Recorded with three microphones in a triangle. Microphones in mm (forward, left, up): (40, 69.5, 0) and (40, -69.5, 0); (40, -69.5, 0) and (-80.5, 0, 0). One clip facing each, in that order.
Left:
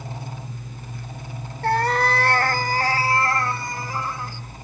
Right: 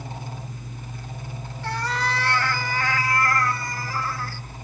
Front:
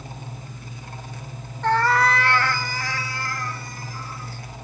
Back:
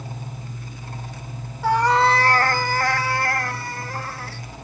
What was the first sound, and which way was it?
A cat meowing, 70° left.